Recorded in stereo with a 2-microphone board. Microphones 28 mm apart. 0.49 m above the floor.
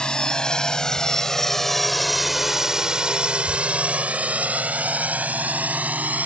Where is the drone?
30° left (ahead or behind); by 6.3 s 70° right (ahead or behind).